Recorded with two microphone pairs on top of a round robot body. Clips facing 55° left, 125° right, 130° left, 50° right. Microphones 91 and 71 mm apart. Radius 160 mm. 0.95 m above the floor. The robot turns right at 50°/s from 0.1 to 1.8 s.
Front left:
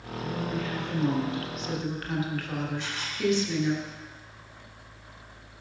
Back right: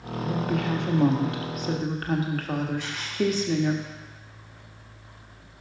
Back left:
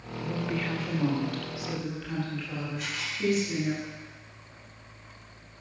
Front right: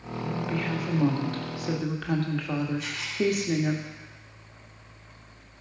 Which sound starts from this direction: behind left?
A camera shutter, at 2.8 s.